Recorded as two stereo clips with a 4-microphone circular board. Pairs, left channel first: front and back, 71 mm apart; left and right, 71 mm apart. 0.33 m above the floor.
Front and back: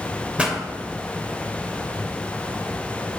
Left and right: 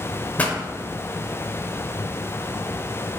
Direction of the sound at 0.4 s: 125° left.